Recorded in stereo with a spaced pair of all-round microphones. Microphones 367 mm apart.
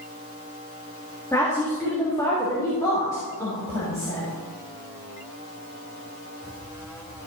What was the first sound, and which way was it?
A woman speaking, 10° left (ahead or behind).